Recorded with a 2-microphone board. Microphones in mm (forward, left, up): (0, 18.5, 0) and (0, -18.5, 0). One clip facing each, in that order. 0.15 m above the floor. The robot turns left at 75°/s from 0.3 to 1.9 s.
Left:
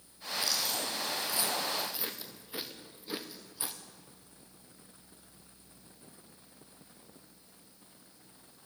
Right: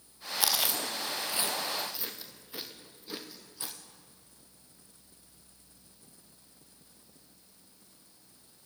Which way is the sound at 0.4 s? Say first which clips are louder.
Right 3 dB; 80° right.